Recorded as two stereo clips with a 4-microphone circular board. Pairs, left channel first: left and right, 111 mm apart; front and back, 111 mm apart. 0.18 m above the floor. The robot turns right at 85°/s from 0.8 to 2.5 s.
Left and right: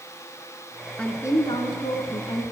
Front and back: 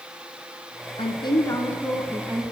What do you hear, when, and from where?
1.0 s a woman speaking: 10° left, 1.9 m; by 2.4 s 135° left, 1.9 m